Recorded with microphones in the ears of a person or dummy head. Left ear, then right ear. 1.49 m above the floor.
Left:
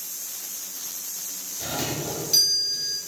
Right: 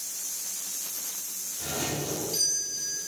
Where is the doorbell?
40° left (ahead or behind), 4.5 m.